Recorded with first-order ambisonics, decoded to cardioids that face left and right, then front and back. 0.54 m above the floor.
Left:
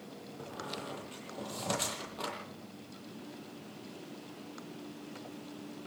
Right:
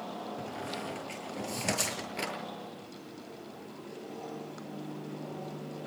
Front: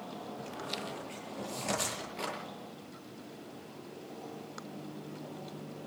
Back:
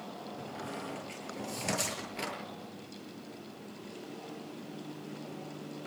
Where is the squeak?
110° right, 8 m.